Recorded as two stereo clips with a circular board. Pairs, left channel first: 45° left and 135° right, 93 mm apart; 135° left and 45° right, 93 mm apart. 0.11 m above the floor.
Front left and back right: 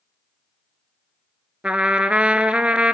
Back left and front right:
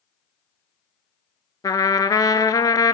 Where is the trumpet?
150° left, 0.7 m.